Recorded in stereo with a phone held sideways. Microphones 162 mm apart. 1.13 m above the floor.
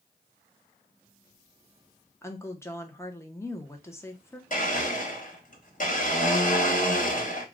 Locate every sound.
2.2 s a woman speaking: 15° left (ahead or behind), 0.6 m
4.5 s a blender: 55° left (ahead or behind), 1.3 m